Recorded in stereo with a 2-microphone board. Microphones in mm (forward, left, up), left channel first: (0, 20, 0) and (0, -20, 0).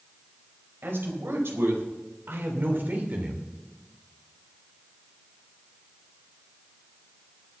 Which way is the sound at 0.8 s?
75° right (ahead or behind).